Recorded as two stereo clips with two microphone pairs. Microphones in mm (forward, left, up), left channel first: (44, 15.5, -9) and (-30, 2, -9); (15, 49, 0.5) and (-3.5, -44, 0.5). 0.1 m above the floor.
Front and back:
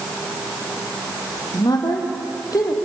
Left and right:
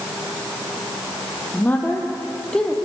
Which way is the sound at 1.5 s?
10° left.